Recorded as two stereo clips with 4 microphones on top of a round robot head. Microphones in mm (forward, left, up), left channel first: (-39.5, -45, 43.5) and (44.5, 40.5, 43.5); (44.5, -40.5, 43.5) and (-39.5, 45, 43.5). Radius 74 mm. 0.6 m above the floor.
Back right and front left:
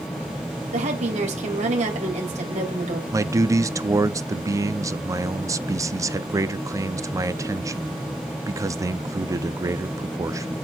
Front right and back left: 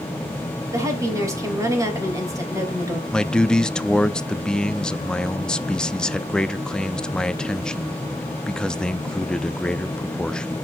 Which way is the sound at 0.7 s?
70° left.